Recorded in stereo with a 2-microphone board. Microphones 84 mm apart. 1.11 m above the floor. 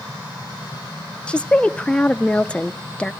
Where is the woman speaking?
15° left (ahead or behind), 0.5 m.